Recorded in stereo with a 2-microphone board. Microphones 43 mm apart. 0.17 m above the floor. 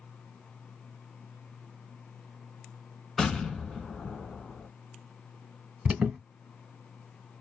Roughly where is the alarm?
Right.